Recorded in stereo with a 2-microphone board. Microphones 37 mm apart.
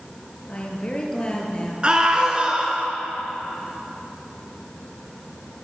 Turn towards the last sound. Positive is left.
turn(degrees=-25)  # may be behind; listen again after turning